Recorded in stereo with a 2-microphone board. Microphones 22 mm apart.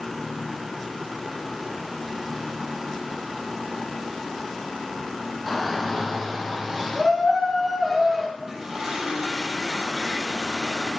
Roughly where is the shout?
Centre.